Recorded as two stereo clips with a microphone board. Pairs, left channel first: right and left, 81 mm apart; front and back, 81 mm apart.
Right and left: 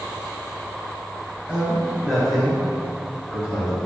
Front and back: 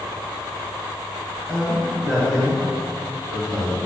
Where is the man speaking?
70° left, 1.6 m; by 3.8 s 135° right, 1.8 m.